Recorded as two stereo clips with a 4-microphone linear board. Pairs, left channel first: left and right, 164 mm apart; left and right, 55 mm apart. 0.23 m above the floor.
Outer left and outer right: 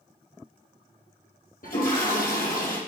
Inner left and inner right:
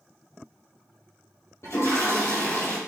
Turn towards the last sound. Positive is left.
turn(degrees=60)  # may be behind; listen again after turning